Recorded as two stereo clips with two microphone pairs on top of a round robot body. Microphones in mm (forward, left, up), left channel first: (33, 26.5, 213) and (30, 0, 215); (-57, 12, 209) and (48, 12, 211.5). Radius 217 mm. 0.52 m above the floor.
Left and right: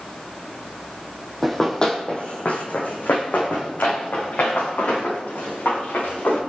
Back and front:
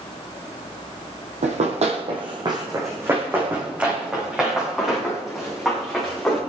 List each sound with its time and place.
1.4 s running footsteps: straight ahead, 1.7 m; by 6.4 s 90° left, 7 m